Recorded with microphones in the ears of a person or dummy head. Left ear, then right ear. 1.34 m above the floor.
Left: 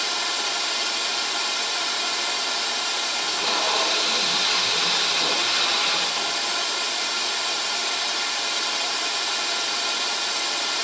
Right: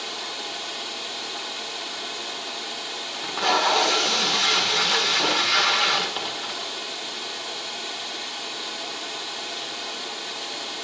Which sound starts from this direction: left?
Running water, at 0.0 s.